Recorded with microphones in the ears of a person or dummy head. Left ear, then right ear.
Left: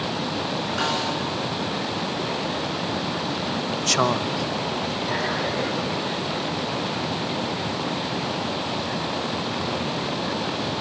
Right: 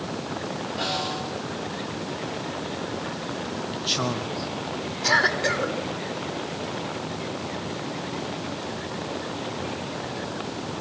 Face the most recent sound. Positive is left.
turn(degrees=-50)  # may be behind; listen again after turning